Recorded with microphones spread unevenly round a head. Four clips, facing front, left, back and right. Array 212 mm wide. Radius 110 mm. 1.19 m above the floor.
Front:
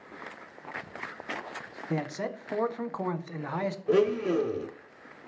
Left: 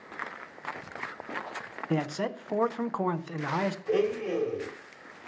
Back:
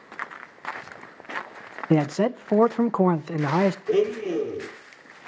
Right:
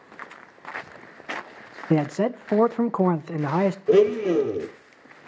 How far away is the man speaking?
About 0.6 m.